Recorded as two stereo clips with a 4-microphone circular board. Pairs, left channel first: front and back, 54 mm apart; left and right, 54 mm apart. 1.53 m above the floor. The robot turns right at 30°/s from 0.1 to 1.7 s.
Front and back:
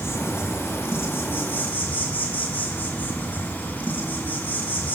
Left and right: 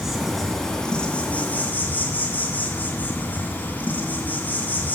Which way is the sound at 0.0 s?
Straight ahead.